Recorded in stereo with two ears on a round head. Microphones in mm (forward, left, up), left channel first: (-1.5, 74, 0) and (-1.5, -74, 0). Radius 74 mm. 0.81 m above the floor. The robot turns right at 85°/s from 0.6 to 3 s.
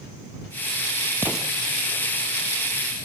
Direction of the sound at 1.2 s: 15° right (ahead or behind).